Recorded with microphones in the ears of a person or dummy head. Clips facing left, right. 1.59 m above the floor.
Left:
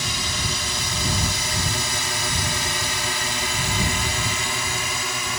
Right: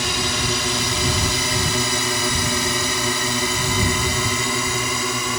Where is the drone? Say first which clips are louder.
Right 6 dB; 55° right (ahead or behind); by 5.4 s 70° right (ahead or behind).